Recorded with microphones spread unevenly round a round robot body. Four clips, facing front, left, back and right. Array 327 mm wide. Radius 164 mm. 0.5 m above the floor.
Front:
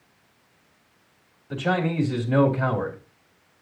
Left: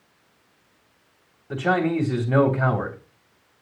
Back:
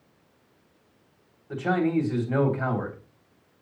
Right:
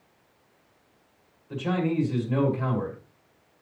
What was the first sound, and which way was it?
A man speaking, 70° left.